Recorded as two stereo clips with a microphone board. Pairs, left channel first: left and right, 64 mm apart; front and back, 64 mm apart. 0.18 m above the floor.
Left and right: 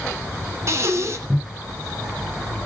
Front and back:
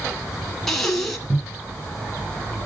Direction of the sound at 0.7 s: 85° right.